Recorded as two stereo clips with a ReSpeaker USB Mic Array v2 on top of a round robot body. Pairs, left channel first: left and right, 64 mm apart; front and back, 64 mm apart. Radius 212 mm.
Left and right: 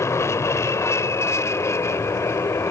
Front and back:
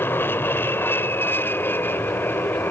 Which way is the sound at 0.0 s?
50° left.